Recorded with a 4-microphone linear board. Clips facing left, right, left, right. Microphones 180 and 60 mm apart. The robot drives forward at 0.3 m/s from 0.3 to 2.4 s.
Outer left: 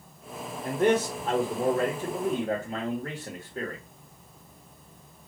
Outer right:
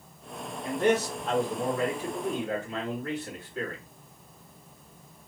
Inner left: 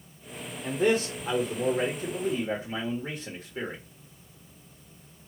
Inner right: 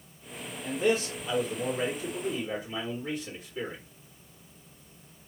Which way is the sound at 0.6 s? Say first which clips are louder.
Outer left 1 dB, inner left 2 dB; 45° left (ahead or behind).